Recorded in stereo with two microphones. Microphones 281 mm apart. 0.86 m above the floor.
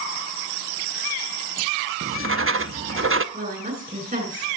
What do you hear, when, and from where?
2.0 s writing: 45° right (ahead or behind), 0.8 m
3.3 s a woman speaking: 25° right (ahead or behind), 8 m